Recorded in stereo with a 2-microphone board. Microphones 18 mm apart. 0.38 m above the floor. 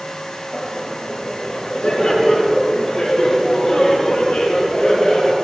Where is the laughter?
75° left (ahead or behind), 6 m.